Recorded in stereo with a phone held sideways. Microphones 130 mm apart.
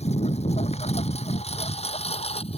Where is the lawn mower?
60° left (ahead or behind); by 2.6 s 50° left (ahead or behind).